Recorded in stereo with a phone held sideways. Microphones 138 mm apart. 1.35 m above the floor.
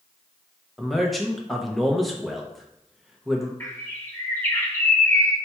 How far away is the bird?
About 0.8 m.